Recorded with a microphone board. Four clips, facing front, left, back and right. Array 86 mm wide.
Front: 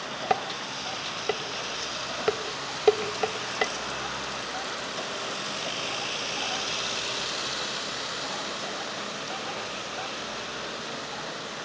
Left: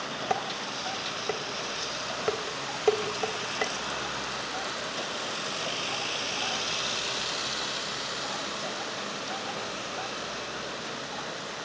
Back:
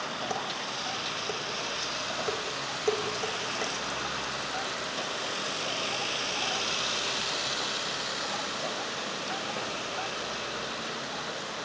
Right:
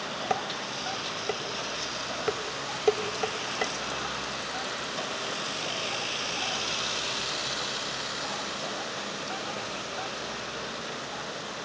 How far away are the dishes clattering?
About 0.8 m.